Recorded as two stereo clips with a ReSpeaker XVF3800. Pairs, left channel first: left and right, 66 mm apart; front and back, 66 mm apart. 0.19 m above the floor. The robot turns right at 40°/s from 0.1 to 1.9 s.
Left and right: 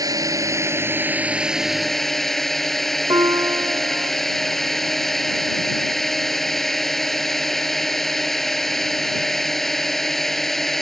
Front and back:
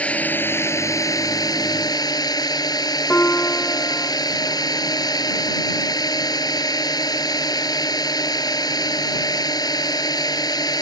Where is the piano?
65° right.